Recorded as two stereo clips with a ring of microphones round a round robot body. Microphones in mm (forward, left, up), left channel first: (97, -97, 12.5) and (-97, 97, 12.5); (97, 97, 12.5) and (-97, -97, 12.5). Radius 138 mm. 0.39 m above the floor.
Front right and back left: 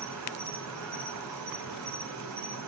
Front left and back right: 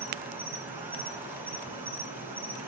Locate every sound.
0.0 s an insect: 145° left, 4 m